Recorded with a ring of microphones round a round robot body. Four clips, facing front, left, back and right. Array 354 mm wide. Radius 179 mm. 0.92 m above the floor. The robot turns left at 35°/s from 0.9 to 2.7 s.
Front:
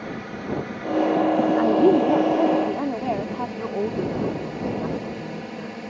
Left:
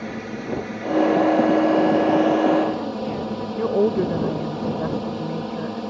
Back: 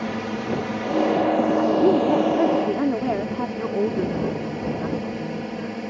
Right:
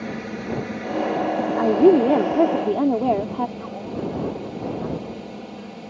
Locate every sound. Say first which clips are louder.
0.0 s a drone: even, back 5 dB; 175° right; by 5.9 s 120° left
1.6 s a woman speaking: right 2 dB, front 2 dB; 75° right; by 3.5 s 115° right
3.6 s a woman speaking: left 10 dB, back 3 dB; 100° left